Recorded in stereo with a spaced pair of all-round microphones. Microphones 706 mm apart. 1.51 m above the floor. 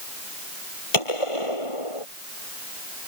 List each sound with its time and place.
0.9 s a gunshot: 45° left (ahead or behind)